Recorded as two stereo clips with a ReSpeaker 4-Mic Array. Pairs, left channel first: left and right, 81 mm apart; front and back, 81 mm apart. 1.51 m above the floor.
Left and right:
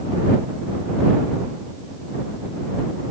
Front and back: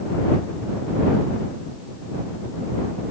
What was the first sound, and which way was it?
Only background noise.